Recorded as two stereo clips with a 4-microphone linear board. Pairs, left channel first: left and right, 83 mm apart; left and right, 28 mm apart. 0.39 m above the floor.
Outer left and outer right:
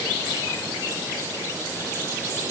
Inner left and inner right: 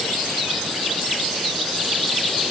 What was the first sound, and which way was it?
Only background noise.